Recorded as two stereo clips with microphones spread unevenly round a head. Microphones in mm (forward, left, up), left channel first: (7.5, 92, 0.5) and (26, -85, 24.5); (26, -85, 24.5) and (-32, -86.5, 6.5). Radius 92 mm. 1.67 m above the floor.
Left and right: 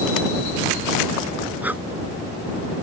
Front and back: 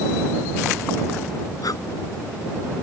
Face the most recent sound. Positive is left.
turn(degrees=-5)